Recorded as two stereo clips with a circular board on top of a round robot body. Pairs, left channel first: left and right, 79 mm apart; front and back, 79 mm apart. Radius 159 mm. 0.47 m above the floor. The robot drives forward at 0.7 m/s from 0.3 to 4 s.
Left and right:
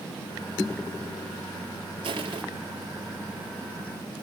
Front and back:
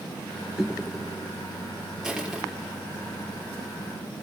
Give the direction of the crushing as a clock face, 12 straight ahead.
3 o'clock.